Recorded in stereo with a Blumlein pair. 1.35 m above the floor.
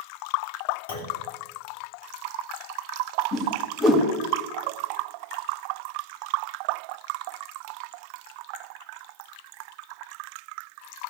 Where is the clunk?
65° left, 3 m.